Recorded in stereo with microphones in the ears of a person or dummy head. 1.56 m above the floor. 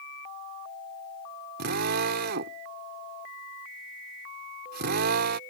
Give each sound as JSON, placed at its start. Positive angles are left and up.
{"t": 1.6, "sound": "a drill", "side_deg": -60}